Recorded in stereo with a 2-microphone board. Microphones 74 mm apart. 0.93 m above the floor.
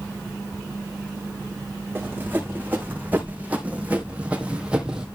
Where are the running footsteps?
25° right (ahead or behind), 3.5 m; by 5.1 s 10° right (ahead or behind), 1.8 m.